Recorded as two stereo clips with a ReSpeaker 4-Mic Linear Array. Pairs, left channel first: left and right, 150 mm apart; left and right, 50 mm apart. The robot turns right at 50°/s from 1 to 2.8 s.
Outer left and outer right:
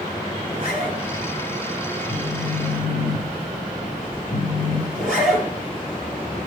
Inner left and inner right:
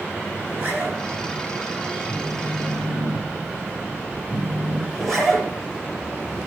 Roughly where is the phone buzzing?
Ahead left.